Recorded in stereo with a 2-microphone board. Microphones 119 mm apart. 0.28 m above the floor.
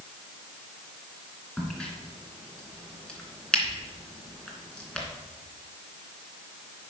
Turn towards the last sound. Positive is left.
turn(degrees=5)  # may be behind; listen again after turning